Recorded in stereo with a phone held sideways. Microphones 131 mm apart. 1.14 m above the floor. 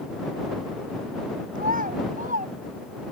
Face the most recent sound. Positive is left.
turn(degrees=-80)